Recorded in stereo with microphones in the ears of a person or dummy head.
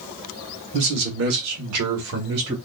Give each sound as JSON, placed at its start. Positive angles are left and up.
{"t": 0.7, "sound": "a man speaking", "side_deg": -60, "distance_m": 1.3}